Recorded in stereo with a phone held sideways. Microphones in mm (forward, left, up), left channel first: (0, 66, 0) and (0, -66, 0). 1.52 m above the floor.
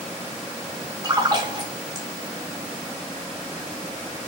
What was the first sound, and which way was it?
A splash, 30° right (ahead or behind).